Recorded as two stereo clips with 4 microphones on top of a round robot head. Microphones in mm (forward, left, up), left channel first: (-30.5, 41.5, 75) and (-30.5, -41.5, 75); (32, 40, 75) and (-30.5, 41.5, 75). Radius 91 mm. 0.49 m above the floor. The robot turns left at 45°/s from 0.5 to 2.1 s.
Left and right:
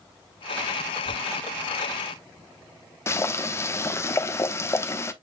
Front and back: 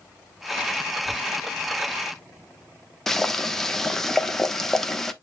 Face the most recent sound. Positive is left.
turn(degrees=80)